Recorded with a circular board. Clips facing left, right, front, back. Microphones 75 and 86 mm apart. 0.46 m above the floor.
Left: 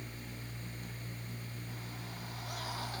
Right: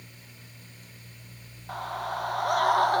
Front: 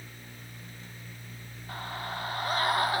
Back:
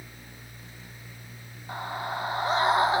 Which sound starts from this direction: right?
A scream, at 1.7 s.